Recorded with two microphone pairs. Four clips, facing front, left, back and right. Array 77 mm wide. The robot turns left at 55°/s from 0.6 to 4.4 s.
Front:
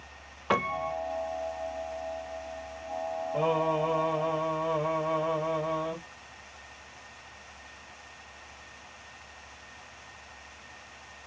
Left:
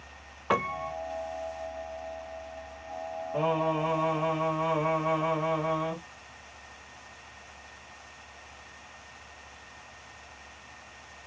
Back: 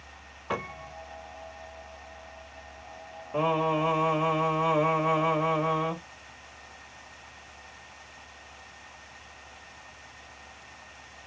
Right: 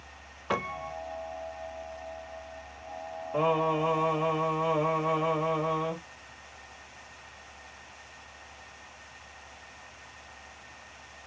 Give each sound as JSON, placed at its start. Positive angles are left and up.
{"t": 0.5, "sound": "a piano", "azimuth_deg": 45, "distance_m": 0.5}
{"t": 3.3, "sound": "singing", "azimuth_deg": -120, "distance_m": 2.5}